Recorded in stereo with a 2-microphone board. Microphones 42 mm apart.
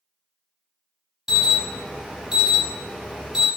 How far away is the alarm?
About 0.8 m.